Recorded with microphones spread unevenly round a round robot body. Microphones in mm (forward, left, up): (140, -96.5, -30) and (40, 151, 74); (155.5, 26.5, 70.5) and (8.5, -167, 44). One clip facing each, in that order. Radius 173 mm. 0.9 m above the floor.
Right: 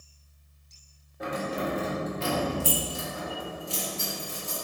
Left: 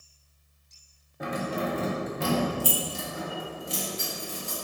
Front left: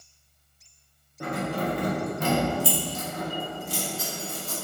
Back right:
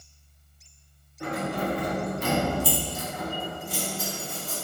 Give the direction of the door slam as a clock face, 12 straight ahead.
No door slam in this recording.